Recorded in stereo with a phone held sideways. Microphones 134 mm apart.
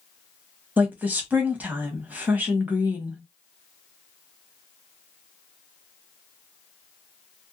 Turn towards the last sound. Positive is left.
turn(degrees=-10)  # may be behind; listen again after turning